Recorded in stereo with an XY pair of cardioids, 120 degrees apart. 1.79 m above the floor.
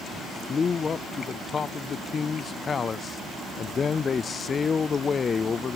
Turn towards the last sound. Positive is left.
turn(degrees=35)